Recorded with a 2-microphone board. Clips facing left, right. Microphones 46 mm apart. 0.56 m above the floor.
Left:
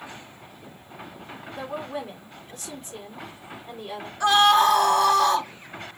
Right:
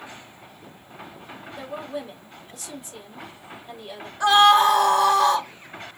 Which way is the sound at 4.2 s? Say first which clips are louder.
Right 2 dB; 5° right (ahead or behind).